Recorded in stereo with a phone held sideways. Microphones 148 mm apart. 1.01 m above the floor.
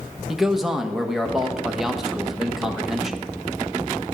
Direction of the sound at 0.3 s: Centre (ahead or behind).